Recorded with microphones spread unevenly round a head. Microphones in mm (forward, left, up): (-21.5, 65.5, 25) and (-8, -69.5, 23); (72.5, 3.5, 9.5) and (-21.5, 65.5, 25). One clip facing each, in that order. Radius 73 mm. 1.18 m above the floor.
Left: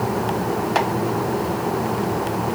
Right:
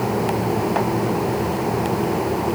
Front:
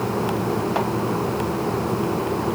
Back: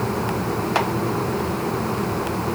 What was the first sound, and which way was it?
Only background noise.